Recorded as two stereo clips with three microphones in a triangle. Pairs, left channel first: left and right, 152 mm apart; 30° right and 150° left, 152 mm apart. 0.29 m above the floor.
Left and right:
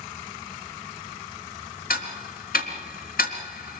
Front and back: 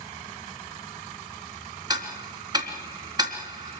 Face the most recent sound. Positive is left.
turn(degrees=90)